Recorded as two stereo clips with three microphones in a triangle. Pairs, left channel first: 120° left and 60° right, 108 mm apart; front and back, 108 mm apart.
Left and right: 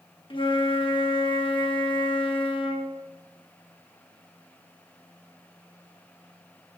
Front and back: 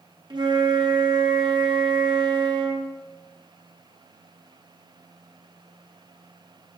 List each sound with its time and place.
0.3 s a flute: 145° left, 1.0 m